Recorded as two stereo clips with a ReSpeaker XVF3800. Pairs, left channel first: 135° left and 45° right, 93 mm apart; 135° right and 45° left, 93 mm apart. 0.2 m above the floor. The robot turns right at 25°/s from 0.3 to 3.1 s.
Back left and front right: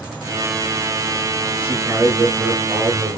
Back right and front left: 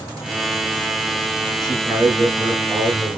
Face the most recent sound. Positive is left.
turn(degrees=45)